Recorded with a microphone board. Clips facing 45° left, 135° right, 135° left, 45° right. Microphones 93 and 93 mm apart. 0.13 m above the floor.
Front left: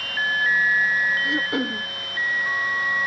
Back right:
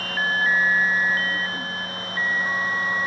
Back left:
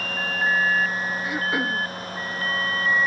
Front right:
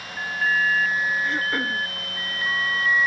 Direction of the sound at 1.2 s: 55° left.